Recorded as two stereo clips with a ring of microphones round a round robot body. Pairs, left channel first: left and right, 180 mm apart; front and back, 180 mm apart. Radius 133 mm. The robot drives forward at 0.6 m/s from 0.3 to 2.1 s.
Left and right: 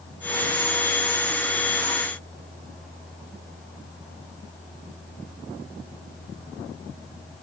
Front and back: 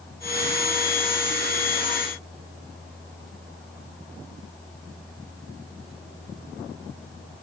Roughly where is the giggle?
No giggle in this recording.